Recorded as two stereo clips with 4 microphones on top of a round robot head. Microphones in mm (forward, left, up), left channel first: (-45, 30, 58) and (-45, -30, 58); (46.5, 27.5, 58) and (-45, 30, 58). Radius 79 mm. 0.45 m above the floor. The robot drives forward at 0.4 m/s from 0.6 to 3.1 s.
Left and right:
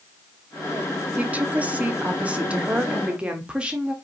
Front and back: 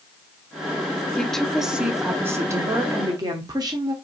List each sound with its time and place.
1.2 s a woman speaking: 70° right, 0.7 m; by 3.9 s 155° right, 1.0 m